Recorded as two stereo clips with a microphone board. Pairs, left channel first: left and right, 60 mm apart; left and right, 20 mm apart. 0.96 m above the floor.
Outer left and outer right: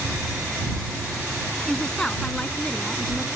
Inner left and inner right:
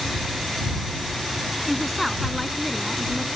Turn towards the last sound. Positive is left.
turn(degrees=10)  # may be behind; listen again after turning